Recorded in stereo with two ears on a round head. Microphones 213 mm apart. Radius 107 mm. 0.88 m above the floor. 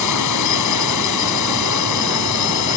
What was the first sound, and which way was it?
A drone, 80° left.